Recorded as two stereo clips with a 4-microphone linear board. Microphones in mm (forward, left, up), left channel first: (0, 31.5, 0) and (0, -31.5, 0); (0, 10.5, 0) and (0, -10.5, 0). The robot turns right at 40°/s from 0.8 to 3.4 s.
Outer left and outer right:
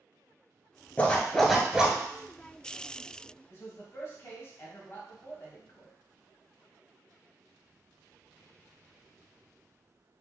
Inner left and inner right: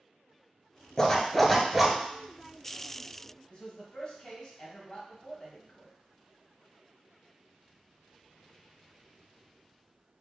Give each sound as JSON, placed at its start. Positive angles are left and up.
{"t": 1.0, "sound": "a zipper", "azimuth_deg": 155, "distance_m": 1.0}
{"t": 3.5, "sound": "a man speaking", "side_deg": 35, "distance_m": 1.2}